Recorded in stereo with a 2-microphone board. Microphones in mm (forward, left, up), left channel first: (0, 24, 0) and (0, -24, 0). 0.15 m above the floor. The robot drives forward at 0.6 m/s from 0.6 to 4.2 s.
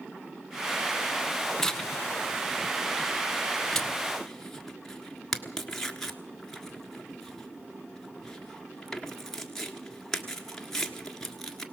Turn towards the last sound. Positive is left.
turn(degrees=5)  # may be behind; listen again after turning